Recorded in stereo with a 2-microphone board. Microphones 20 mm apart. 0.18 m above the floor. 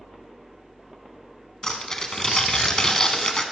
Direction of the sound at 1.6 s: 35° left (ahead or behind).